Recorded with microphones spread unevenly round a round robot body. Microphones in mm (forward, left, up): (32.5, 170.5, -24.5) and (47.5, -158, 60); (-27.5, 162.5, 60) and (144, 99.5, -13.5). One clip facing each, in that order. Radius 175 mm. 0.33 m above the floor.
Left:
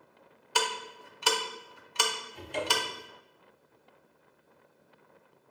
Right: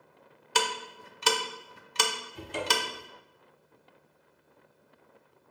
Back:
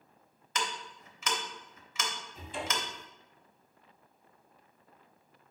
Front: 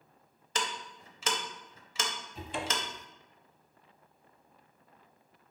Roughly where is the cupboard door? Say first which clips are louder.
Right 1 dB, front 2 dB; ahead.